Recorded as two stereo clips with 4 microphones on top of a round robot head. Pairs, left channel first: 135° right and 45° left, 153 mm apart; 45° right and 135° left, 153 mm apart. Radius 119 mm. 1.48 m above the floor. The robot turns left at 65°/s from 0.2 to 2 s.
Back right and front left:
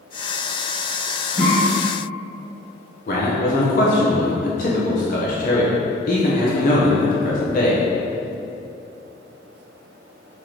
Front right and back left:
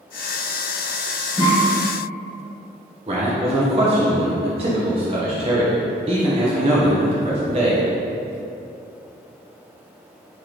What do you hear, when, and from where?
1.4 s a cough: 155° right, 1.8 m; by 1.5 s 170° right, 1.8 m
3.1 s a man speaking: 170° right, 0.7 m